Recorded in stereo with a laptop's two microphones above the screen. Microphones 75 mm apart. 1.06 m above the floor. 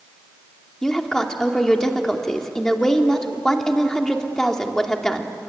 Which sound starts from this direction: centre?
A woman speaking, at 0.8 s.